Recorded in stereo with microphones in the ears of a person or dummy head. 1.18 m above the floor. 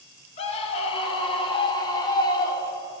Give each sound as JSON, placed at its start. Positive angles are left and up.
{"t": 0.4, "sound": "a scream", "side_deg": 35, "distance_m": 2.5}